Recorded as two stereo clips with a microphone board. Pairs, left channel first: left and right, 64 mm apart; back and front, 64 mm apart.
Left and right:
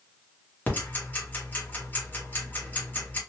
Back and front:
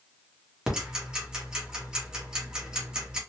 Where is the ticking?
65° left, 1.0 m.